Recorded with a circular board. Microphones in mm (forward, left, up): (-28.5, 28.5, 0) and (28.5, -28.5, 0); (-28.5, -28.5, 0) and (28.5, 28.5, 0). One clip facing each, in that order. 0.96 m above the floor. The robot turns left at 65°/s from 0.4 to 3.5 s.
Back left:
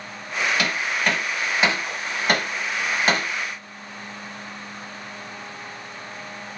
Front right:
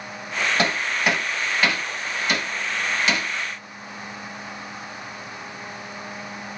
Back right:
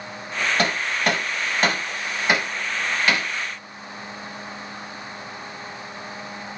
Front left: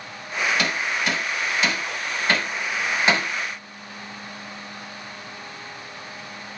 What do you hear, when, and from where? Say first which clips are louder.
0.6 s hammering: front right 1 dB, back right 2 dB; 95° right, 0.9 m; by 3.3 s 90° left, 0.9 m